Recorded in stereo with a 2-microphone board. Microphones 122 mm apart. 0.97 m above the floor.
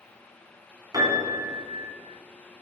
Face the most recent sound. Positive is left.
turn(degrees=-30)  # may be behind; listen again after turning